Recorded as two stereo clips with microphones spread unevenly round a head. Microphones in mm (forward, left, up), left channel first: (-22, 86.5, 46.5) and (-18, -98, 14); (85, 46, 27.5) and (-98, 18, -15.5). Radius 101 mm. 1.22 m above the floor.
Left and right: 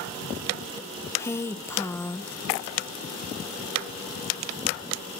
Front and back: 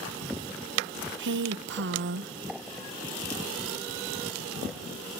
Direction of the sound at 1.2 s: 170° left.